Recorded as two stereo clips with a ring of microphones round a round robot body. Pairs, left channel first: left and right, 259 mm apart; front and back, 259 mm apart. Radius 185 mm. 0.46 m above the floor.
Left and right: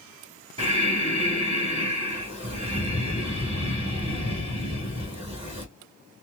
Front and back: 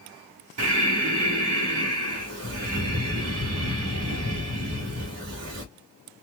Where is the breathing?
160° right, 1.0 m.